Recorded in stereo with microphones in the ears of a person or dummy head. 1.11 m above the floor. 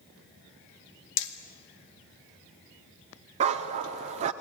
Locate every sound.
1.2 s hammering: 60° left (ahead or behind), 1.9 m
3.4 s a dog barking: 30° right (ahead or behind), 0.9 m